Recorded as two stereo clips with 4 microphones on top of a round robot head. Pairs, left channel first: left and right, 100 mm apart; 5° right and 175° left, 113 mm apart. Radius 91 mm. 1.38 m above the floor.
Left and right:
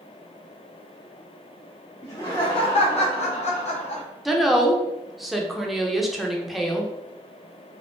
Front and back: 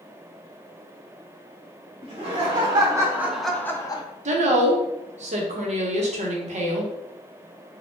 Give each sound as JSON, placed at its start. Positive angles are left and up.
{"t": 2.0, "sound": "laughter", "azimuth_deg": 135, "distance_m": 1.4}
{"t": 4.2, "sound": "a woman speaking", "azimuth_deg": 180, "distance_m": 0.8}